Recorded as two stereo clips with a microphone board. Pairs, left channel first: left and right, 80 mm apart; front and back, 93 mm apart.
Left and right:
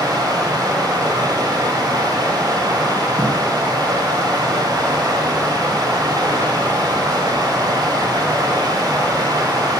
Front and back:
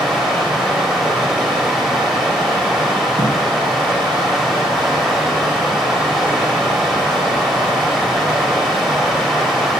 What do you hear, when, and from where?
0.0 s running water: 85° right, 1.9 m
3.2 s a thud: 20° right, 2 m